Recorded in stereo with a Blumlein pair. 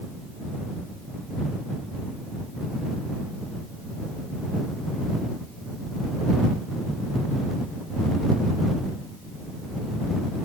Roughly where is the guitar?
No guitar in this recording.